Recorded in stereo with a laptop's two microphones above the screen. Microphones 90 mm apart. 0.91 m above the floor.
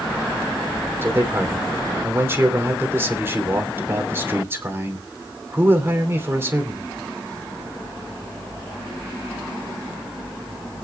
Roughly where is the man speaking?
Right.